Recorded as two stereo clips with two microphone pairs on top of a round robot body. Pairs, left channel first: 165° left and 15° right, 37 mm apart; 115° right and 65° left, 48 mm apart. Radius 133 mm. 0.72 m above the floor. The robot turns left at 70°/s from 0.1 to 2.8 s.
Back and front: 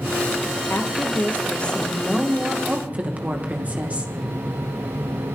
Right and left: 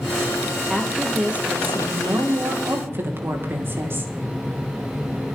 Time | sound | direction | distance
0.7 | a woman speaking | 175° left | 3 m